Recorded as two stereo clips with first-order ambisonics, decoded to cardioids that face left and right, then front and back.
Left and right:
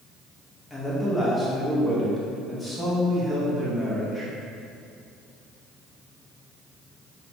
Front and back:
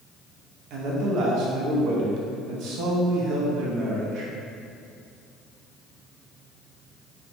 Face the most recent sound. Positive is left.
turn(degrees=170)